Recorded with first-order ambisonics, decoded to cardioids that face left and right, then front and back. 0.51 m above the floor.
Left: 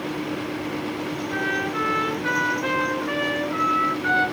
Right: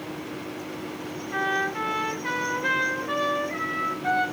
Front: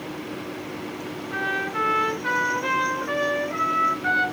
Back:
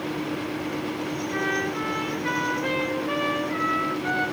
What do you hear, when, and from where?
1.3 s a trumpet: 65° left, 1.7 m